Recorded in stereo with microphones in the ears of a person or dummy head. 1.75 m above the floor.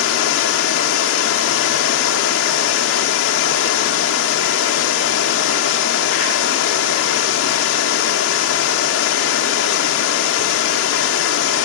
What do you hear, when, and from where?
0.0 s running water: 70° left (ahead or behind), 2.5 m